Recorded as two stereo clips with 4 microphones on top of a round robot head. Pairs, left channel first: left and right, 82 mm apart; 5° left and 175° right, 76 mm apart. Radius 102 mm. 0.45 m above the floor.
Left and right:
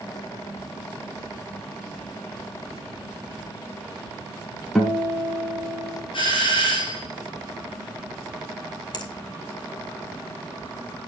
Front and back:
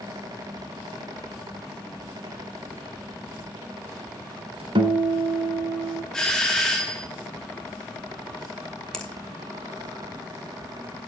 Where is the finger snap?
85° left, 2.5 m.